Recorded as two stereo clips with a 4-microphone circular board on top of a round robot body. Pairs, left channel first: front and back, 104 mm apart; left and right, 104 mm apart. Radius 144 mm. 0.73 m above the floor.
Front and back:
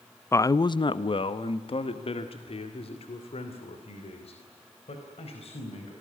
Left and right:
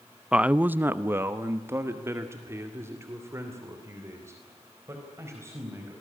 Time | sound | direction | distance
0.3 | a man speaking | 20° right | 0.6 m